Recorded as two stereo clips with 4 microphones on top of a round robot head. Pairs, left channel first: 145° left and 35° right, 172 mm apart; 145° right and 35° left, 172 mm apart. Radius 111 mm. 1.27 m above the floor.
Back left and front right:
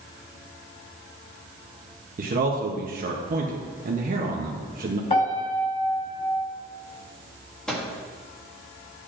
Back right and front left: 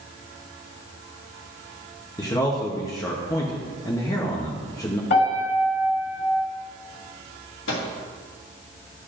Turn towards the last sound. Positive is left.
turn(degrees=-130)